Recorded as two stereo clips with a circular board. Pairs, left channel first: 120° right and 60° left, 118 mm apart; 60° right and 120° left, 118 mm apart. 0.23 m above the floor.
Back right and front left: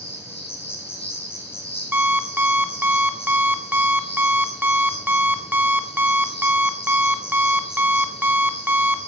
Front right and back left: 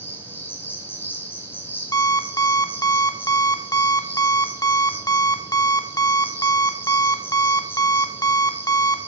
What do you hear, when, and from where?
0.0 s an insect: 130° right, 3 m
1.9 s an alarm clock: 10° right, 1.0 m